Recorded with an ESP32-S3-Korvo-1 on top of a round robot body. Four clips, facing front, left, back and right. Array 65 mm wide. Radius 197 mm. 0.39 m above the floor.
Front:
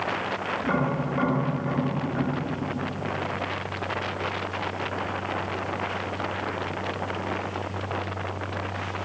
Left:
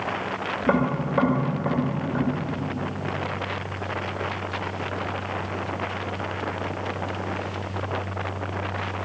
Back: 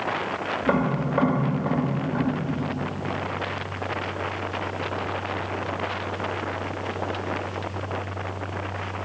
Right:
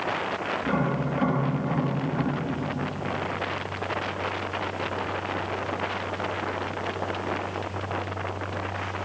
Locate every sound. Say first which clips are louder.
0.6 s tapping: left 6 dB, back 4 dB; 115° left, 2 m